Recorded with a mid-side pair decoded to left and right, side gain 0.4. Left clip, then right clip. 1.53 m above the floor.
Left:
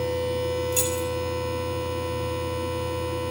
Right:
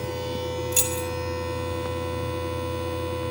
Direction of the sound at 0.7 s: 45° right.